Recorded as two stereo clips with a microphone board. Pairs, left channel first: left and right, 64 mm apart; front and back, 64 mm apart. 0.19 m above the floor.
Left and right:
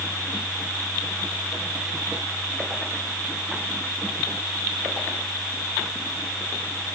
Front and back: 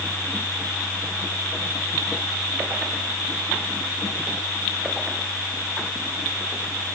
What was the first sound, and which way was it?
Only background noise.